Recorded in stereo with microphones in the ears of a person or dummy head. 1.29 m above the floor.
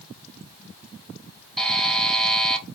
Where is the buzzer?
Centre (ahead or behind), 0.6 m.